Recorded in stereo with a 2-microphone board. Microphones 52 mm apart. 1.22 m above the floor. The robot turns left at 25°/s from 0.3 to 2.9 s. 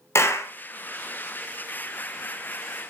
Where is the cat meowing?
I don't hear a cat meowing.